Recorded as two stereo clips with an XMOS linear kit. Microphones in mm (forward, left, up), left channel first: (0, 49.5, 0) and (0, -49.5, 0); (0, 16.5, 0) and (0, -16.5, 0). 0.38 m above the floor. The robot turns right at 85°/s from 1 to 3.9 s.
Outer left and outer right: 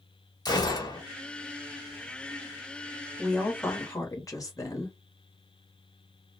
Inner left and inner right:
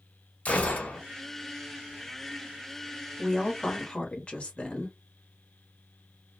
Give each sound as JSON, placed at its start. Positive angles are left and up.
{"t": 0.5, "sound": "a gunshot", "side_deg": 45, "distance_m": 0.9}
{"t": 3.2, "sound": "a woman speaking", "azimuth_deg": 5, "distance_m": 1.0}